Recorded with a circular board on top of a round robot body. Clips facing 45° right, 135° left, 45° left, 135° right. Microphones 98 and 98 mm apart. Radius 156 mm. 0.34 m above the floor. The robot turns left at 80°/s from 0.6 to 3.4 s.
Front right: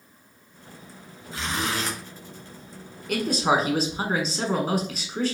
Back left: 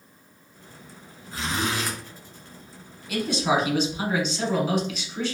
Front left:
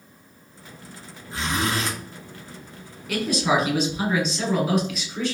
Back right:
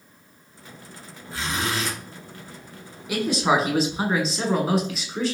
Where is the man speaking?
55° right, 1.4 m; by 5.3 s 80° right, 1.4 m.